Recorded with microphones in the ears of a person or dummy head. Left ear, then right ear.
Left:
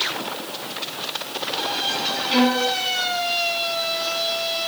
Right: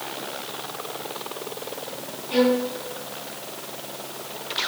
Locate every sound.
2.3 s a violin: 45° left (ahead or behind), 4 m